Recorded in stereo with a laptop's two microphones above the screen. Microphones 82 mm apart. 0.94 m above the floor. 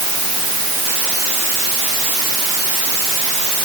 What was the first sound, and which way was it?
Only background noise.